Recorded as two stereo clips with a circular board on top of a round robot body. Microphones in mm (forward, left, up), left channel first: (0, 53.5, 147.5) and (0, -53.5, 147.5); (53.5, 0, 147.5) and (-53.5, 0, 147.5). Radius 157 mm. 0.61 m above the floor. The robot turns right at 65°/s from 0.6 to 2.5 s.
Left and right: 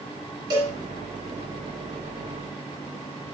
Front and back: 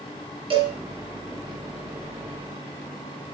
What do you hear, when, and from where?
0.5 s a cowbell: 140° right, 2 m; by 0.8 s 130° right, 2 m